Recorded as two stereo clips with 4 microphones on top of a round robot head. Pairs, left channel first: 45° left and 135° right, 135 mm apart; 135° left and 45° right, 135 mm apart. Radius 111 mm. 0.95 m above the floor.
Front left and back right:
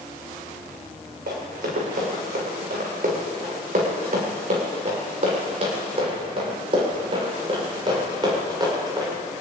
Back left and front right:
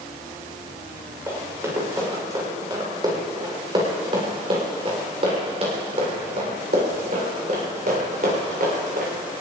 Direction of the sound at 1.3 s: 120° right.